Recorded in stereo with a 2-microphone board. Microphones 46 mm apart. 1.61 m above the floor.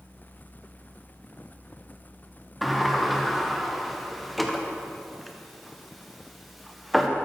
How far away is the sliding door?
About 0.7 m.